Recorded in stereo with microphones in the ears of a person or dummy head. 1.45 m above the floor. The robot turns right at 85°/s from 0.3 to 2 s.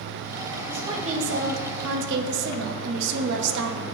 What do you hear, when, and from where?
0.7 s a woman speaking: 175° right, 1.0 m; by 3.8 s 65° right, 1.0 m